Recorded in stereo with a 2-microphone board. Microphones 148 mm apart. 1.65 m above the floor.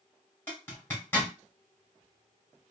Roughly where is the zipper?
Centre.